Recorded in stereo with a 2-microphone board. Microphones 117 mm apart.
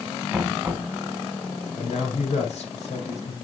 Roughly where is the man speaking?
Left.